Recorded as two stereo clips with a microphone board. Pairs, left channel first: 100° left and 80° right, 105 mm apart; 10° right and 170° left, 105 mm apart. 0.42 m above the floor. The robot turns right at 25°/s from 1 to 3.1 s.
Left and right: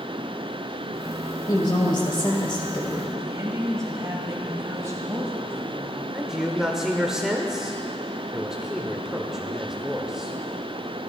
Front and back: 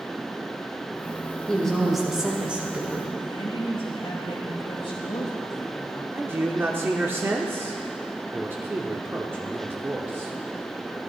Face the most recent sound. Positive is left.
turn(degrees=-155)